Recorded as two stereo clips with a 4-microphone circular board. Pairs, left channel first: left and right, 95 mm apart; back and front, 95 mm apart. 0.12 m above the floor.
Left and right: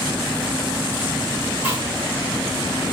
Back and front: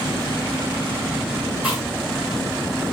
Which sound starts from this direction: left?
Chewing, at 1.6 s.